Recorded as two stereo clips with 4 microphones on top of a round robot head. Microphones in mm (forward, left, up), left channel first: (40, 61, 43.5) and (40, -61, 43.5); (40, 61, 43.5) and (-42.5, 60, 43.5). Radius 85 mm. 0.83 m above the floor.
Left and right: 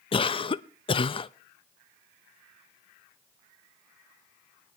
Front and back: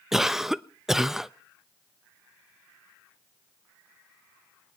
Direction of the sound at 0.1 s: 100° left.